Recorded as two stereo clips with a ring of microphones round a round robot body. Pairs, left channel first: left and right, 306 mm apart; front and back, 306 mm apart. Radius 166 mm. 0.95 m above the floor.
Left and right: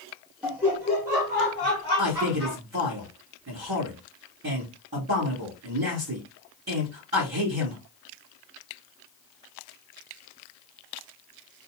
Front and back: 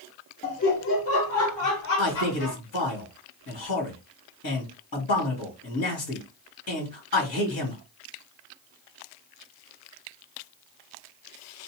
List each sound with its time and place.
0.4 s laughter: 15° right, 0.6 m; by 2.6 s 5° right, 1.4 m
2.0 s a man speaking: 35° right, 1.6 m